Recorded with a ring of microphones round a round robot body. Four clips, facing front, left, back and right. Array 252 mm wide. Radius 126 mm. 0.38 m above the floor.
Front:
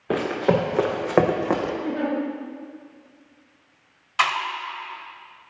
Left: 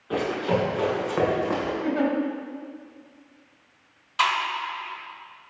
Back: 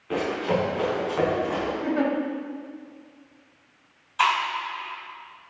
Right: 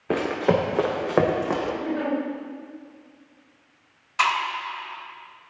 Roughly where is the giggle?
Behind left.